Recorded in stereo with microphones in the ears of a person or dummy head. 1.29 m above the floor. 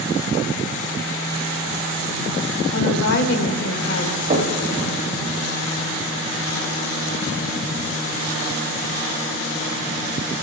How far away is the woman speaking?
About 1.5 m.